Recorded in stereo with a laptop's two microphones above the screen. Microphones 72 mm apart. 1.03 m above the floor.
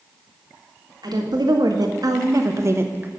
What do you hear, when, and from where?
1.0 s a woman speaking: 75° right (ahead or behind), 1.9 m; by 3.1 s 25° right (ahead or behind), 1.0 m